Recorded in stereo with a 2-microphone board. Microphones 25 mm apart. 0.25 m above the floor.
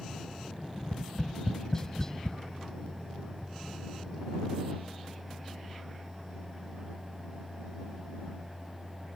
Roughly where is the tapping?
Left.